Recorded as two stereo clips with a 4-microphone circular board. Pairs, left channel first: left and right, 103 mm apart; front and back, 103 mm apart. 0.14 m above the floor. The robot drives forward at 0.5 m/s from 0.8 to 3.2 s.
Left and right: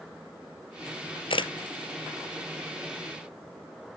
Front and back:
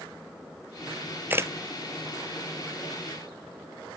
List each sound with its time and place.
1.3 s a camera shutter: 110° left, 0.6 m; by 1.5 s 120° left, 0.6 m